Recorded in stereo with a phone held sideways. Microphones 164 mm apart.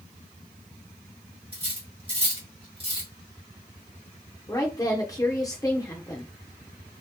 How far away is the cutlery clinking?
About 1.7 m.